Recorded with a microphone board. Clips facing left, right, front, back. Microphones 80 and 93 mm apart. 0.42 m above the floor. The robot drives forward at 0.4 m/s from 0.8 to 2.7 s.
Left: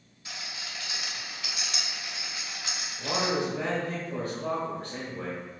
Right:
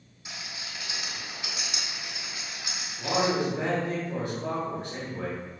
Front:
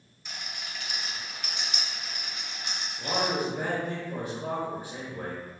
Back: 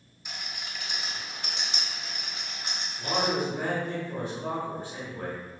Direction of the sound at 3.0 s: 60° right.